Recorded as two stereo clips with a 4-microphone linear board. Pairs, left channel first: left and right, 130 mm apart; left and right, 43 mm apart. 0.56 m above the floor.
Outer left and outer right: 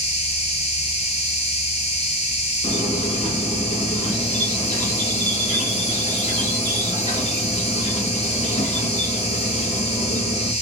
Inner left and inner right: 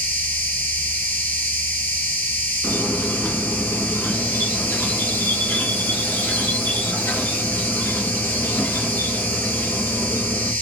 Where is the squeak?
70° left (ahead or behind), 0.9 m.